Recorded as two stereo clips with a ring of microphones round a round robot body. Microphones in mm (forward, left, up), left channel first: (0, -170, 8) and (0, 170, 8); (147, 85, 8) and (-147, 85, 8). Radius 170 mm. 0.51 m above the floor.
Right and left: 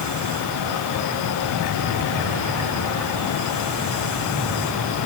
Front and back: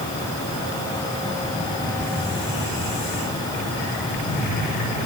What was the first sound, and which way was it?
Only background noise.